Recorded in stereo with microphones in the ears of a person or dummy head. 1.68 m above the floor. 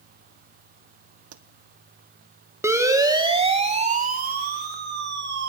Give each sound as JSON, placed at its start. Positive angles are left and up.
{"t": 1.3, "sound": "a pop", "side_deg": -80, "distance_m": 1.4}
{"t": 2.6, "sound": "a siren", "side_deg": -10, "distance_m": 2.5}